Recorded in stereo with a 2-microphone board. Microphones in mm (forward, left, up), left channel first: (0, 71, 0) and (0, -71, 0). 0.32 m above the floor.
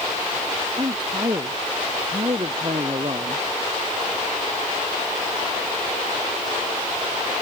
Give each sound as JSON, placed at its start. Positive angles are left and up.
{"t": 0.8, "sound": "a man speaking", "side_deg": -30}